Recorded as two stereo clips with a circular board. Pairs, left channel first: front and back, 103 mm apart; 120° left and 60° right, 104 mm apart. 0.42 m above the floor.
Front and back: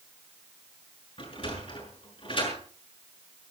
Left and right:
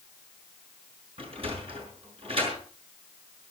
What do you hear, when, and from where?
1.2 s a sliding door: 30° right, 6 m